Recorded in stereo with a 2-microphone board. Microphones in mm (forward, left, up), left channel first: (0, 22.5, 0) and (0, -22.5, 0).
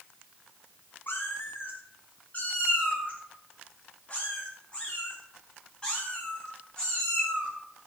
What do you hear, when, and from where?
1.1 s a cat meowing: 50° left (ahead or behind), 5.5 m; by 7.9 s 15° left (ahead or behind), 11.5 m